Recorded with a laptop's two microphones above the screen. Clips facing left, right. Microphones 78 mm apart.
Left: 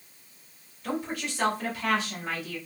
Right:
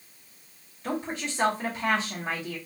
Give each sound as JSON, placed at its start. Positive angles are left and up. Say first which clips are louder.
{"t": 0.8, "sound": "a woman speaking", "louder": "even", "side_deg": -30, "distance_m": 2.5}